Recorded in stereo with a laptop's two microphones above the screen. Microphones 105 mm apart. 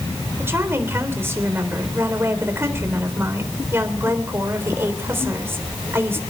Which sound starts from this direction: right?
A woman speaking, at 0.4 s.